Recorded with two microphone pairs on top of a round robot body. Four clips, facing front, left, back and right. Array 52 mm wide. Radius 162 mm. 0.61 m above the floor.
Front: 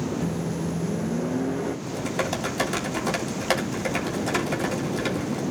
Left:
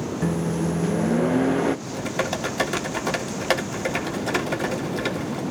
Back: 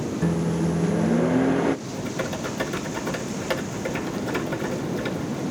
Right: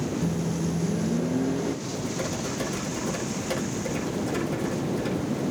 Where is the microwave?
115° left, 0.5 m.